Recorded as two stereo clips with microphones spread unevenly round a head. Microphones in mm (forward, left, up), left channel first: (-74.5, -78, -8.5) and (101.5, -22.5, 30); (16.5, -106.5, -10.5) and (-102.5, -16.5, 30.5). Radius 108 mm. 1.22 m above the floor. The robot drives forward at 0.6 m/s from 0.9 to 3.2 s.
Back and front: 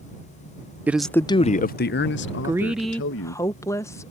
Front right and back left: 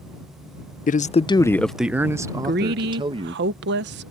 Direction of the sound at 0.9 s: 70° right.